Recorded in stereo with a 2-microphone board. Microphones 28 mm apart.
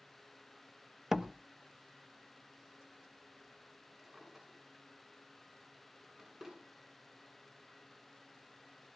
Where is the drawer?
20° right (ahead or behind), 8 m.